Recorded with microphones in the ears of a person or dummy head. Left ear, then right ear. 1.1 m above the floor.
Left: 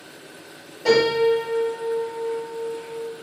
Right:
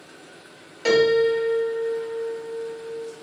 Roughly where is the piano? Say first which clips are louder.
Even; right.